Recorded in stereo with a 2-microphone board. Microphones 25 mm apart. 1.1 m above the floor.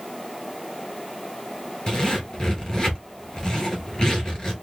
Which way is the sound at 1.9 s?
30° left (ahead or behind).